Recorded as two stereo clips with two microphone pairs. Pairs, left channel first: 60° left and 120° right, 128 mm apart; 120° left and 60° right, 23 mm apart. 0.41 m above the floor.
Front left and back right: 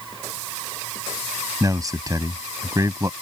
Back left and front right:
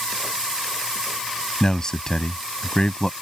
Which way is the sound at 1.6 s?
Straight behind.